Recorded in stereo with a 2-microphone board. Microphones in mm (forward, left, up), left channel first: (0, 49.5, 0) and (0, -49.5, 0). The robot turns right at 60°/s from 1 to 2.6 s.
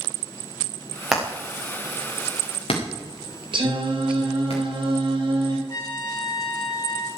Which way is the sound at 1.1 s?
5° right (ahead or behind).